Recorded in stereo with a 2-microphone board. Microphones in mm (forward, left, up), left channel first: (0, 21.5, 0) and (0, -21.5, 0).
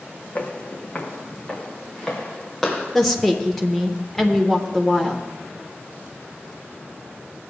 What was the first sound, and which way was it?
Footsteps, 35° left (ahead or behind).